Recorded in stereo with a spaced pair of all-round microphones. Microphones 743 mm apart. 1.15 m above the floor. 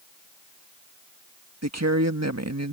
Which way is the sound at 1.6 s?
20° right (ahead or behind).